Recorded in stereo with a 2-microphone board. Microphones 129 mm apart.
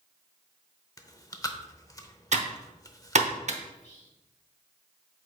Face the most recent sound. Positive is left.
turn(degrees=60)  # may be behind; listen again after turning